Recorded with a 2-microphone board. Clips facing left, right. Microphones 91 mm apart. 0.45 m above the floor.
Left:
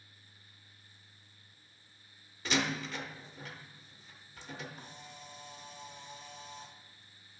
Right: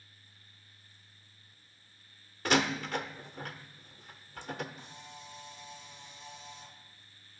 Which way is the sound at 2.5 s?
55° right (ahead or behind).